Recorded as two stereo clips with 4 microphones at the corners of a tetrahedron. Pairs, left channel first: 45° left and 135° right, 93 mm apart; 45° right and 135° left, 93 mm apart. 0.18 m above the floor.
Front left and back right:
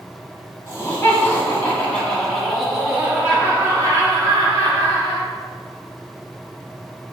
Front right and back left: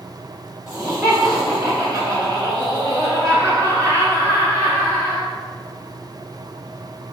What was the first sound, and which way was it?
Laughter, 90° left.